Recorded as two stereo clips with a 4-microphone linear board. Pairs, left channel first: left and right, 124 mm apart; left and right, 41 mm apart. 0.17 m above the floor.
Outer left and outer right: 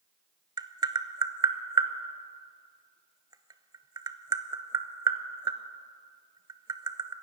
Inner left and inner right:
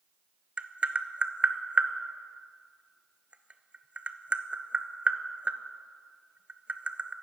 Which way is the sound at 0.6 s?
35° right (ahead or behind).